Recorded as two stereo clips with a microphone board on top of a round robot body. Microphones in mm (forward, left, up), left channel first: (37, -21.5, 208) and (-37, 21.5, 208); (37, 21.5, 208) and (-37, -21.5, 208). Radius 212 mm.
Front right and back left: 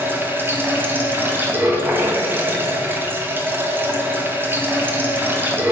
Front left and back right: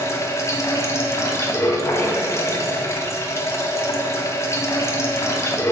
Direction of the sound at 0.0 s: 85° left.